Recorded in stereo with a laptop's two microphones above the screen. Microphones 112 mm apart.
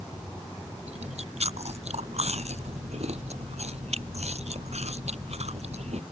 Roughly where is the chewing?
Right.